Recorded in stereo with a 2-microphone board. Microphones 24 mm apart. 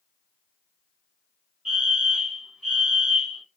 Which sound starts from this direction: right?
A fire alarm, at 1.6 s.